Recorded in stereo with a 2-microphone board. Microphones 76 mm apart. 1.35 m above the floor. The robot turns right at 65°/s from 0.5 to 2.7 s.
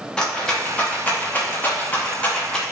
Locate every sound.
0.2 s a rattle: 10° left (ahead or behind), 0.7 m